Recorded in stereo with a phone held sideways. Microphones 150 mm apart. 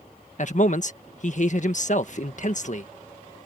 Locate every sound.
0.4 s a man speaking: 55° left (ahead or behind)